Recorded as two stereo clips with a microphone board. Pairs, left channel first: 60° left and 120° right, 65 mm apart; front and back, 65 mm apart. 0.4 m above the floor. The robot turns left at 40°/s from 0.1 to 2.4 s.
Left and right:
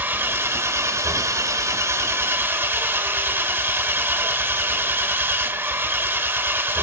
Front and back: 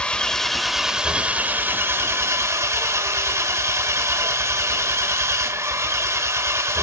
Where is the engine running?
70° right, 1.1 m; by 6.8 s 160° right, 1.1 m.